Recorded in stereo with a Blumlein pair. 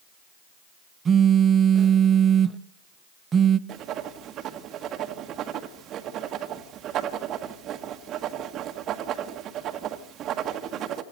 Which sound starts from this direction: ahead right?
Writing, at 3.7 s.